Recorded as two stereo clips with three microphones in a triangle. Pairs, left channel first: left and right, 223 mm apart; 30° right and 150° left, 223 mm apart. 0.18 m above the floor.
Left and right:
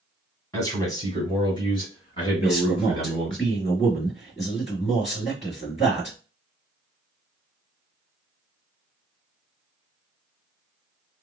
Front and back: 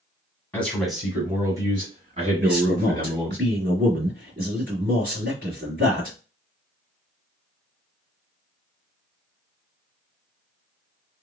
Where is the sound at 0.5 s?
35° left, 1.5 m; by 3.4 s 145° left, 2 m.